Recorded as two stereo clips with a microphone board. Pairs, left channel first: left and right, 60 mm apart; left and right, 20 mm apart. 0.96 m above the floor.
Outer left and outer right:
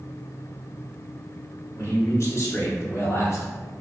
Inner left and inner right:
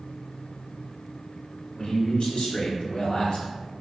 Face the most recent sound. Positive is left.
turn(degrees=50)  # may be behind; listen again after turning